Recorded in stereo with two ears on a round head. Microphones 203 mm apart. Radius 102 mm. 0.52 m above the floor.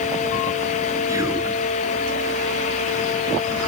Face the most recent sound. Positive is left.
turn(degrees=-15)  # may be behind; listen again after turning